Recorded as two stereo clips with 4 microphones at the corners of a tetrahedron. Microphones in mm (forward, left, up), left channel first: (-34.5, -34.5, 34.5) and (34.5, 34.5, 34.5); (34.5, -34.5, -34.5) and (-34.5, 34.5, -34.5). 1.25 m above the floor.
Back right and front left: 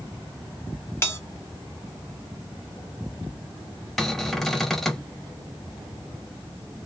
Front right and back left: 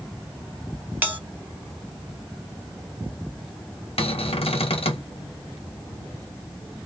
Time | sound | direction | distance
1.0 | a bell | 170° right | 0.7 m
4.0 | a cupboard door | 50° right | 0.6 m